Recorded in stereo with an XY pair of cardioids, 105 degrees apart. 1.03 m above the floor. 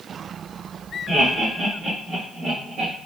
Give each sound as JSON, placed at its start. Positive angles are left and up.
{"t": 1.1, "sound": "laughter", "azimuth_deg": -15, "distance_m": 1.8}